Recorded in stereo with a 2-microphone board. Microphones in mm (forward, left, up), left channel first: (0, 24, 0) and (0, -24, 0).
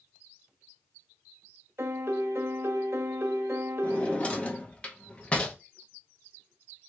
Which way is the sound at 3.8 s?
25° left (ahead or behind).